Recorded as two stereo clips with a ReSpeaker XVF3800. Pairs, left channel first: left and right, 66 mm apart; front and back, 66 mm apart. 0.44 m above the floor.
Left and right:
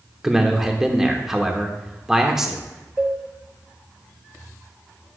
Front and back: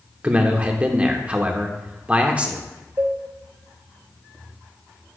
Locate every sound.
0.2 s a man speaking: 155° right, 0.7 m
3.0 s a cowbell: 150° right, 1.2 m